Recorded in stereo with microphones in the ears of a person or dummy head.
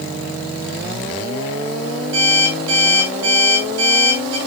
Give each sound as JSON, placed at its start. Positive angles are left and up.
{"t": 2.1, "sound": "an alarm clock", "side_deg": -80, "distance_m": 7.5}